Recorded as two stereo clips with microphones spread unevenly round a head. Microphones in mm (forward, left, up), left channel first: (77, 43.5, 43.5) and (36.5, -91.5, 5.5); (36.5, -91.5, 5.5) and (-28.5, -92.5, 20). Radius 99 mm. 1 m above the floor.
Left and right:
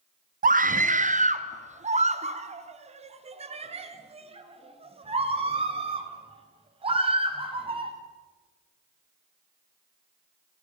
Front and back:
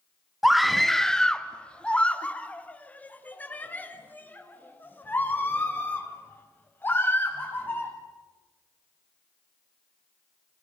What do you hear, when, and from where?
0.4 s a scream: 90° right, 1.1 m; by 7.9 s 55° right, 6 m